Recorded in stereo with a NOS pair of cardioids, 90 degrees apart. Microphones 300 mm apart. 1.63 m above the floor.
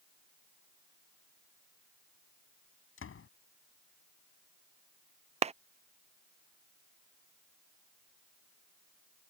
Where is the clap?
25° right.